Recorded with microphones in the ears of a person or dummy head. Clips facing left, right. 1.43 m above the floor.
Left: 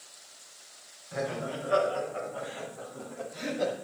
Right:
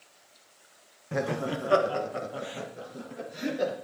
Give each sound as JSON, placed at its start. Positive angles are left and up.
{"t": 1.1, "sound": "laughter", "side_deg": -70, "distance_m": 1.4}